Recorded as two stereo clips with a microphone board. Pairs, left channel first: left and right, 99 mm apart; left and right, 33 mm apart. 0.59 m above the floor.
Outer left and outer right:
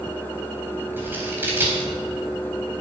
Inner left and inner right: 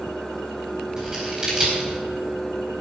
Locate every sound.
1.0 s scissors: 20° right (ahead or behind), 4 m